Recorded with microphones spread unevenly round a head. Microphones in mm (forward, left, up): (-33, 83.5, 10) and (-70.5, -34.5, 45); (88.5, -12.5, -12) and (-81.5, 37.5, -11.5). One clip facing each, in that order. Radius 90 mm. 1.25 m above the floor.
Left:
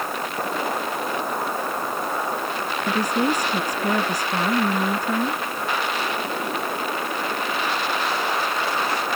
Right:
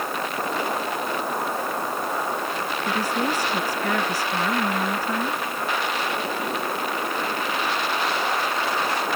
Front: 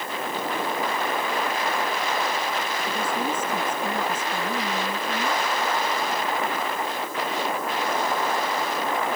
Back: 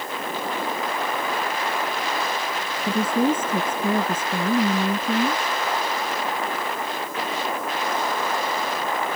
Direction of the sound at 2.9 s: 145° left.